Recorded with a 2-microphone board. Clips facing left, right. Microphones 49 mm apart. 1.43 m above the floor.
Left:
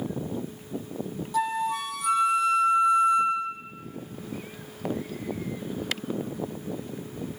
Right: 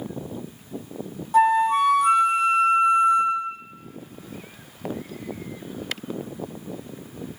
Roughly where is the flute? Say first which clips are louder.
Right 10 dB; right.